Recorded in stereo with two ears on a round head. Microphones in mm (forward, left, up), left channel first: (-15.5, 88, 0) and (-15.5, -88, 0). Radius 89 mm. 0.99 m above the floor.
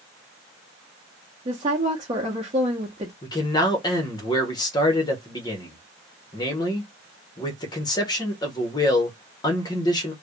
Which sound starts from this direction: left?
A man speaking, at 3.2 s.